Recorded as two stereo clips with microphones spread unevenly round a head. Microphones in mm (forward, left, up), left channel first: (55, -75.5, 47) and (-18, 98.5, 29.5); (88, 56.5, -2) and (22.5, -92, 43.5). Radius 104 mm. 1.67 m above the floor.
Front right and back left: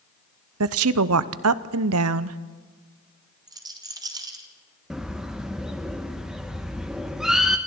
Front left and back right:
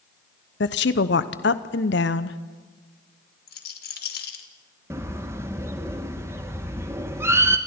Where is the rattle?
40° left, 2.5 m.